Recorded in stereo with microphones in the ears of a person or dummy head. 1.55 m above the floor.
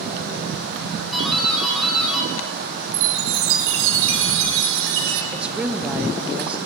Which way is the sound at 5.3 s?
5° right (ahead or behind).